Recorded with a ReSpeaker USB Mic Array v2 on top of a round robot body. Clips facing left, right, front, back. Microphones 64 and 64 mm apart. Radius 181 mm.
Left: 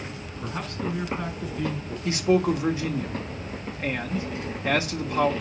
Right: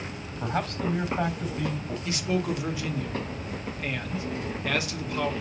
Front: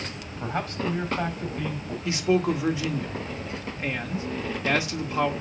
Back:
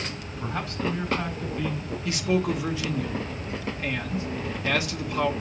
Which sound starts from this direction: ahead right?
A man speaking, at 0.4 s.